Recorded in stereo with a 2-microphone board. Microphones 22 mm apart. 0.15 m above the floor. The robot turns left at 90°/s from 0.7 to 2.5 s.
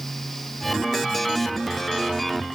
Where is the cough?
No cough in this recording.